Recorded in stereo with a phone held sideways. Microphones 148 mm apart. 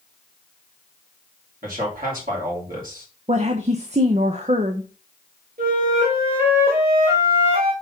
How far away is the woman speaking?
About 0.8 m.